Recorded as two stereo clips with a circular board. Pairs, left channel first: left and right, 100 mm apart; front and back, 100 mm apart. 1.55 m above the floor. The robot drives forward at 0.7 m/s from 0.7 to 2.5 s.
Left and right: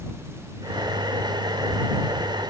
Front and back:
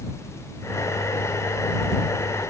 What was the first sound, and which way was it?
Only background noise.